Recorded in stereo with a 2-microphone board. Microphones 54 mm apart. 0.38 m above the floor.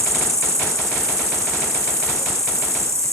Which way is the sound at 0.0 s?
55° right (ahead or behind).